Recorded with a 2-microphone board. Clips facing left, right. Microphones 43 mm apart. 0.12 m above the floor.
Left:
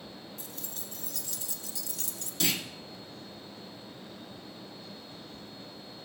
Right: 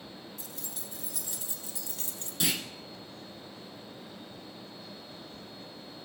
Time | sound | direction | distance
0.4 | keys jangling | centre (ahead or behind) | 1.8 m
2.4 | a clunk | 15° right (ahead or behind) | 1.4 m